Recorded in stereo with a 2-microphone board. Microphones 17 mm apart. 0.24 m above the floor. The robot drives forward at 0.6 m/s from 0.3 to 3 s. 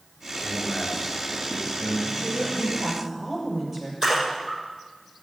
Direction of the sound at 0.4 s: Centre (ahead or behind).